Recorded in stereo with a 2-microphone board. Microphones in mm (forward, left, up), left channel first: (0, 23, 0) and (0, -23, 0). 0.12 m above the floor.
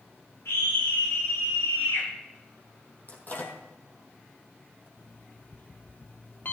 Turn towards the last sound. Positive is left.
turn(degrees=50)  # may be behind; listen again after turning